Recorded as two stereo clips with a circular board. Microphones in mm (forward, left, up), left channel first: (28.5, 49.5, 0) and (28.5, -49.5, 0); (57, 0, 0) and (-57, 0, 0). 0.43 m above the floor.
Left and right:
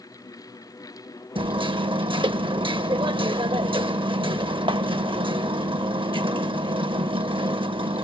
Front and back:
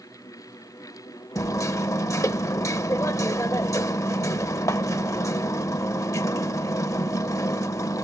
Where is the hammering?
60° right, 0.5 m.